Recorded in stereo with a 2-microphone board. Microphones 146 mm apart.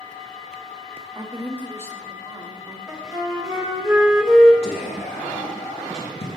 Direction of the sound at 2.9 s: 5° right (ahead or behind).